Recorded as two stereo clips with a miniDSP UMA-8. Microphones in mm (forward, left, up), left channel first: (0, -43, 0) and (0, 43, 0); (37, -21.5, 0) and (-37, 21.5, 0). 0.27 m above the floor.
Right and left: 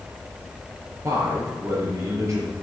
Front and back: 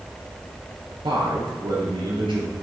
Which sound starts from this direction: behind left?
A man speaking, at 1.0 s.